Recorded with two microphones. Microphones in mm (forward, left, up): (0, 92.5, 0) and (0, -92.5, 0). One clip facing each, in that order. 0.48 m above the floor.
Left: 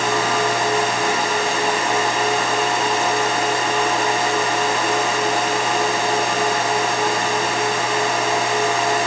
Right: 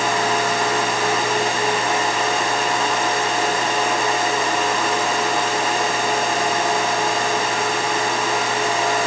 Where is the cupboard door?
I don't hear a cupboard door.